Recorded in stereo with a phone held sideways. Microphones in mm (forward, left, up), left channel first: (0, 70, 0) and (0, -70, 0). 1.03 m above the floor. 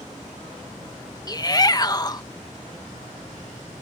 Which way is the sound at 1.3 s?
30° left (ahead or behind).